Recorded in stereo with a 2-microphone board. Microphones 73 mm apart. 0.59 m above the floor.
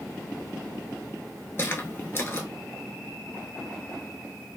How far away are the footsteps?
About 0.6 m.